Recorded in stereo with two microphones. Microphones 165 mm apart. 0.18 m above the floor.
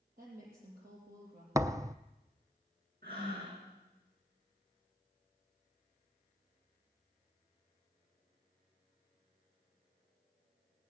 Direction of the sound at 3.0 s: 70° right (ahead or behind).